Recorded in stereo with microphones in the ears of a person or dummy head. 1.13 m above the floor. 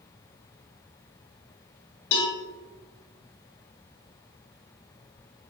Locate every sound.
2.1 s a cowbell: 35° left (ahead or behind), 1.4 m